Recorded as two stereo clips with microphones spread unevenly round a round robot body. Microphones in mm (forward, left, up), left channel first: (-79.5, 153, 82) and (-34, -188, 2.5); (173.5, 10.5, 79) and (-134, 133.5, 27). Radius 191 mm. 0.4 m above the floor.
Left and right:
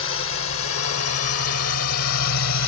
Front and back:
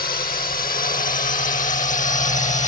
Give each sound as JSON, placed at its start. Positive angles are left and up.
{"t": 0.0, "sound": "a drone", "azimuth_deg": 40}